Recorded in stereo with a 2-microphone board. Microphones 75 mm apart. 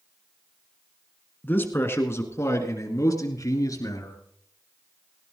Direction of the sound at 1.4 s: 25° left (ahead or behind).